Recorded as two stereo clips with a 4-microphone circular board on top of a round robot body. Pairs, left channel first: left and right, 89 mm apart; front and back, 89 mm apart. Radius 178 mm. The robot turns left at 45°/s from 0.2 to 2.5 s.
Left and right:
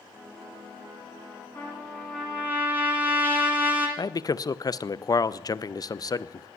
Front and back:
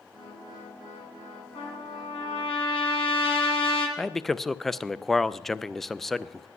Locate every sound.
1.6 s a trumpet: 25° left, 1.8 m; by 3.9 s 20° right, 1.8 m
4.0 s a man speaking: 85° left, 0.6 m